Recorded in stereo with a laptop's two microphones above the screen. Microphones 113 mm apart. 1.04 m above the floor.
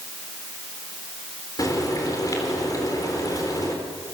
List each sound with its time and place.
1.6 s frying: 30° left (ahead or behind), 3.5 m